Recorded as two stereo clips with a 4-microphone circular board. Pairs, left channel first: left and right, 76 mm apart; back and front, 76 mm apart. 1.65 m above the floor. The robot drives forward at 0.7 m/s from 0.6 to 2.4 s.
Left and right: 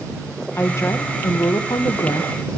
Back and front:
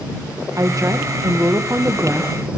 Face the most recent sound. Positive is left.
turn(degrees=75)